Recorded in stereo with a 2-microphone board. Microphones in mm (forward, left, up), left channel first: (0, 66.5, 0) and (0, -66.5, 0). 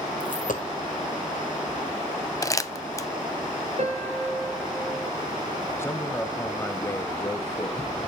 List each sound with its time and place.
0.2 s a dropped coin: 85° left, 1.6 m
2.4 s crumpling: 25° left (ahead or behind), 0.6 m
3.8 s a piano: 55° right (ahead or behind), 3 m
5.8 s a man speaking: 20° left (ahead or behind), 1.0 m